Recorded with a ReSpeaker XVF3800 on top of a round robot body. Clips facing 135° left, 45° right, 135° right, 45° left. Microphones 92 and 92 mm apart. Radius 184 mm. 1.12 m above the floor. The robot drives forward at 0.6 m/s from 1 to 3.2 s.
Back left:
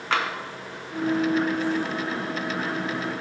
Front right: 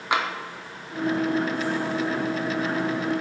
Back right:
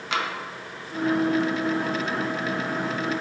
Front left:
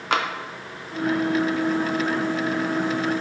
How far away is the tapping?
About 0.6 m.